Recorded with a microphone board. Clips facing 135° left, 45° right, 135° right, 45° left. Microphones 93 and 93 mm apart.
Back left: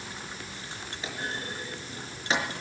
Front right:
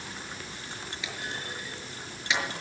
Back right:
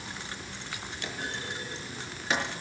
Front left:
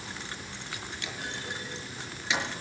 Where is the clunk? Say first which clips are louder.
Back left 4 dB, back right 2 dB; 175° right, 5.5 m.